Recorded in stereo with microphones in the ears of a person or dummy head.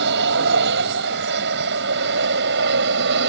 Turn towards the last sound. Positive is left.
turn(degrees=-60)  # may be behind; listen again after turning